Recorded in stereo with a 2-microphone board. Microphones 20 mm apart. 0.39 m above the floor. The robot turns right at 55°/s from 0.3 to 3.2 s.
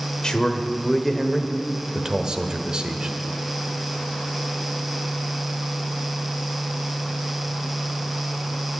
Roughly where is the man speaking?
Behind left.